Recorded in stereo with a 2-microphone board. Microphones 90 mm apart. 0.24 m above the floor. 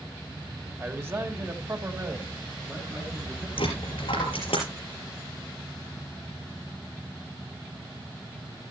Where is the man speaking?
25° right (ahead or behind), 1.6 m; by 3.5 s 30° right (ahead or behind), 2.5 m.